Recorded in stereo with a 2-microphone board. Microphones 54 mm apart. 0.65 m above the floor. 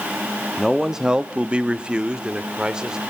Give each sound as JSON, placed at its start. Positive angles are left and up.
{"t": 0.6, "sound": "a man speaking", "side_deg": -5, "distance_m": 0.9}